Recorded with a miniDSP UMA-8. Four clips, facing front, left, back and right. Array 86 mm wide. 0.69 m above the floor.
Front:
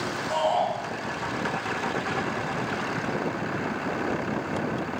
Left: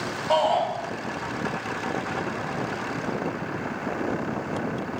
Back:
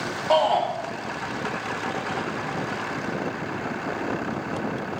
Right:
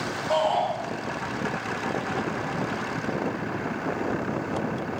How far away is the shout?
About 1.0 m.